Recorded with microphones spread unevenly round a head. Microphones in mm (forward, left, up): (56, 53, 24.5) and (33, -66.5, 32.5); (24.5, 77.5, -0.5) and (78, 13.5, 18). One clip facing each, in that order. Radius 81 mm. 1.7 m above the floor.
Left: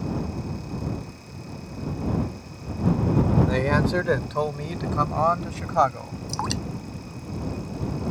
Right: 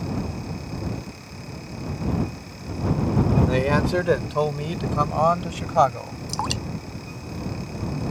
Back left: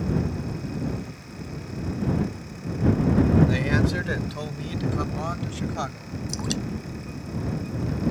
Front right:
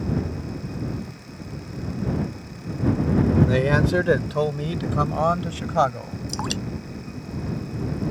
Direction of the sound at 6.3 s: 30° right.